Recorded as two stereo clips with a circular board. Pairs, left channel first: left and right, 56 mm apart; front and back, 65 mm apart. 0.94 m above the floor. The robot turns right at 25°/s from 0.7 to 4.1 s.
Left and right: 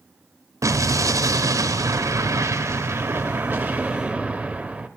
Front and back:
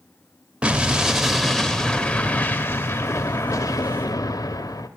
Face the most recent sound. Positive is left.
turn(degrees=-20)